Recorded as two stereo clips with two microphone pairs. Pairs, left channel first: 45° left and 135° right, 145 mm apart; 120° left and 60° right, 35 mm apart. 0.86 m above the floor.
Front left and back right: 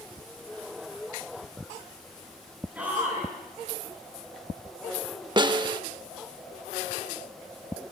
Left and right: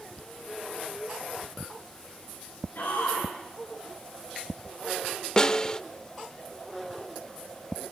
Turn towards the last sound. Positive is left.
turn(degrees=180)